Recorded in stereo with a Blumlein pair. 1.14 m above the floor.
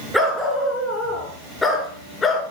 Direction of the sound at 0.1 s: Straight ahead.